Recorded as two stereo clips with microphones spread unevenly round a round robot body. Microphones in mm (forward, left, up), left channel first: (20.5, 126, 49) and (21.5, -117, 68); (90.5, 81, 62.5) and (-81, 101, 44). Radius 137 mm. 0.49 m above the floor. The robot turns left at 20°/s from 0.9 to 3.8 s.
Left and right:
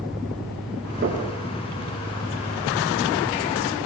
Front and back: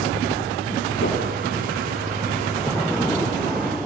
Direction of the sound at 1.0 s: 40° right.